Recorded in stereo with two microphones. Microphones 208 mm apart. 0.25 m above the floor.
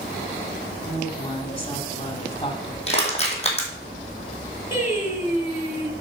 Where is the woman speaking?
25° left (ahead or behind), 1.7 m.